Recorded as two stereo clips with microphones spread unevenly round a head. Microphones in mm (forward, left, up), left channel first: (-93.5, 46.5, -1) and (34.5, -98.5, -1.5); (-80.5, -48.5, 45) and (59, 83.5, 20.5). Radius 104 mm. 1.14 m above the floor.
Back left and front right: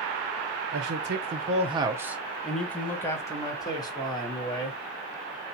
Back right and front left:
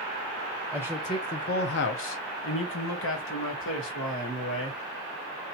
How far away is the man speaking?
About 0.6 m.